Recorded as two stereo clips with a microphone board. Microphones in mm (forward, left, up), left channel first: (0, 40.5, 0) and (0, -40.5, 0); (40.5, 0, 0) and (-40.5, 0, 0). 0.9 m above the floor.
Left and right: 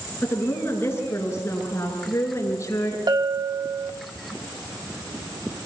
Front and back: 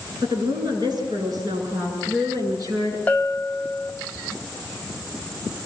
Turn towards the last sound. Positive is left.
turn(degrees=-70)